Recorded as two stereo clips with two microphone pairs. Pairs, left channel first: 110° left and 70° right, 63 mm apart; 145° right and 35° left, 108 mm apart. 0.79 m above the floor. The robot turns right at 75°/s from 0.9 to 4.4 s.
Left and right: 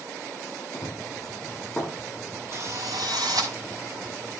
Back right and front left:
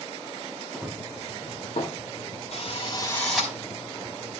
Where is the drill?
120° right, 5.5 m; by 3.5 s 40° right, 5.5 m.